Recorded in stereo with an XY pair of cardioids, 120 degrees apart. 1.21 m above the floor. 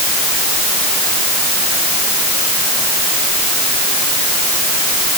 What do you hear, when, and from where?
Only background noise.